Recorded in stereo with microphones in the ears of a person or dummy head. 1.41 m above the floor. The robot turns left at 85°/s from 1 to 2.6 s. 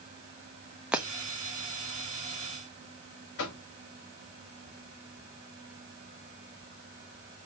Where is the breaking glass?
5° right (ahead or behind), 1.1 m; by 1.1 s 10° right (ahead or behind), 1.1 m.